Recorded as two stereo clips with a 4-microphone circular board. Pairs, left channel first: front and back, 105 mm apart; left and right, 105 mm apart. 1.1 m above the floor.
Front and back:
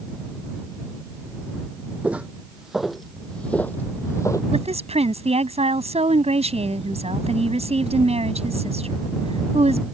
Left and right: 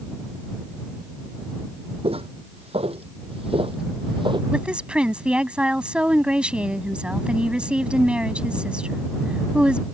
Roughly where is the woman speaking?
Behind.